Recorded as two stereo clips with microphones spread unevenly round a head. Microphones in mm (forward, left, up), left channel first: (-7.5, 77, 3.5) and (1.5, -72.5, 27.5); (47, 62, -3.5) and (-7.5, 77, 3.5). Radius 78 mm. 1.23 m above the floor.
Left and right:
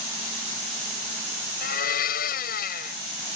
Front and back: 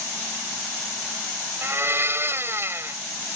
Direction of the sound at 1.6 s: 125° left.